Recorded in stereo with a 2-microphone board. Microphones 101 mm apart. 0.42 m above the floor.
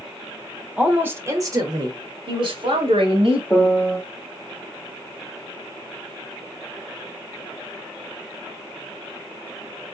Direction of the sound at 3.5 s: 15° left (ahead or behind).